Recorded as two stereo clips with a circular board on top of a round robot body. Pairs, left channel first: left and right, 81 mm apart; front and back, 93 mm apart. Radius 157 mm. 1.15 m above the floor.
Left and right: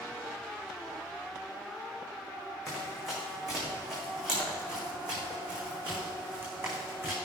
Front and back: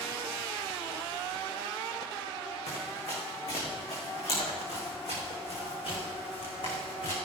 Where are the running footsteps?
5° left, 4.5 m; by 7.2 s 30° right, 4.5 m.